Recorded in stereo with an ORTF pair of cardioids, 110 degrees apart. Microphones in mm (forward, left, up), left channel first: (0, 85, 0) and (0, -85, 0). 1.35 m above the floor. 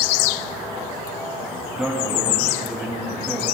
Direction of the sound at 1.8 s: 5° right.